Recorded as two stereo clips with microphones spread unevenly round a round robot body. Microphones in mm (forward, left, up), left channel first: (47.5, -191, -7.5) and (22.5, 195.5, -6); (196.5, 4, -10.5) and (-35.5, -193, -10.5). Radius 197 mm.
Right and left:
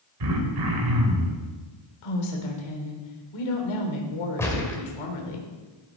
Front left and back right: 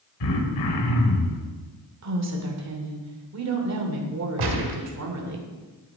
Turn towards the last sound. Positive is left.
turn(degrees=-170)